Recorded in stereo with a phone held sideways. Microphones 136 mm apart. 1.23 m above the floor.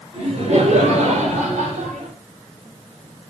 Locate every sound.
0.1 s laughter: 55° right (ahead or behind), 5.5 m; by 2.1 s 70° right (ahead or behind), 6.5 m